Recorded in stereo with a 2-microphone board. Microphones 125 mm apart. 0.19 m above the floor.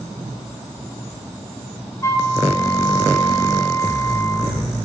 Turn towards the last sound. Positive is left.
turn(degrees=25)  # may be behind; listen again after turning